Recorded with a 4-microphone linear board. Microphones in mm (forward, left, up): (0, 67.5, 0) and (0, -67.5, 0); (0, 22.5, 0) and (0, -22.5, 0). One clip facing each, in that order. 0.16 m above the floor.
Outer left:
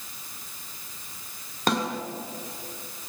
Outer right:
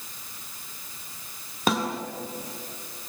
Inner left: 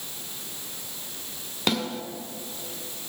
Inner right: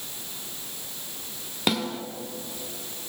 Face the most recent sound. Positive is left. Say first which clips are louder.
# even, even
turn(degrees=-5)  # may be behind; listen again after turning